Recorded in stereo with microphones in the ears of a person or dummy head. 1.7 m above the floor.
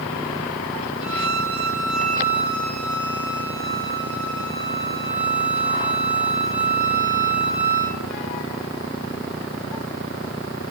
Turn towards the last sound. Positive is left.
turn(degrees=-10)  # may be behind; listen again after turning